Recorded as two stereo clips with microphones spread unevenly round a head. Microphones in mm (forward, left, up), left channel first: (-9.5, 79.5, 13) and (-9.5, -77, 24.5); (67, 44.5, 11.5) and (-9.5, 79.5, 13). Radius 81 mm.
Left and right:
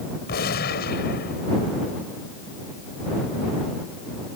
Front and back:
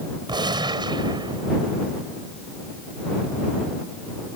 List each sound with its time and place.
0.3 s a gunshot: 120° left